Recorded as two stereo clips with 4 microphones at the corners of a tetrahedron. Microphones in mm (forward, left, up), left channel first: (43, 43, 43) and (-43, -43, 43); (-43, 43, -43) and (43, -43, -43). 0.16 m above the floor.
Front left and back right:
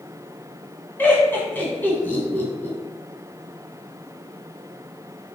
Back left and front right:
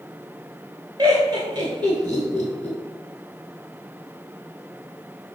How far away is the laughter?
About 1.2 m.